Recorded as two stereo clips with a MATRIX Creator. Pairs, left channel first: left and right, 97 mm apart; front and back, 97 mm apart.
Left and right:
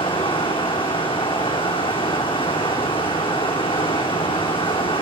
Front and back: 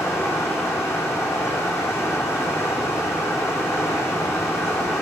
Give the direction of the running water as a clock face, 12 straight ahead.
10 o'clock.